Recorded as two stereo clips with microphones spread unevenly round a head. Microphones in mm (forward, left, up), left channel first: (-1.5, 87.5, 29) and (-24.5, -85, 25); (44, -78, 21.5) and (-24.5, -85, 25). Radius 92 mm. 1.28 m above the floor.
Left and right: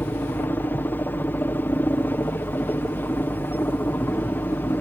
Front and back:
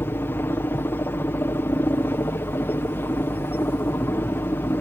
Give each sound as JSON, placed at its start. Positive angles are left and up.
{"t": 0.0, "sound": "a helicopter", "azimuth_deg": 10}